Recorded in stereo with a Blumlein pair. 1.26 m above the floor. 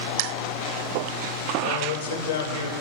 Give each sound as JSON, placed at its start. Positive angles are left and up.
{"t": 1.6, "sound": "a man speaking", "azimuth_deg": 70, "distance_m": 5.0}